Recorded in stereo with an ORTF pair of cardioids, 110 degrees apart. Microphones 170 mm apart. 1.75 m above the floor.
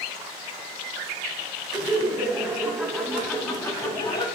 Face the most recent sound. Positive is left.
turn(degrees=25)